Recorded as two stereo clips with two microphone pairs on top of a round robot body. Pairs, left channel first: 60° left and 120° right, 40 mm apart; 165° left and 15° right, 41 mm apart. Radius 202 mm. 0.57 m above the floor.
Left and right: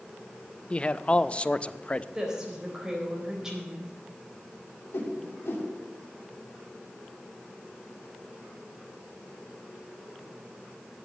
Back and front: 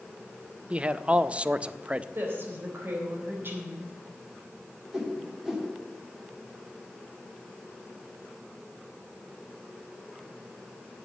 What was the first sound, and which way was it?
A man speaking, 20° left.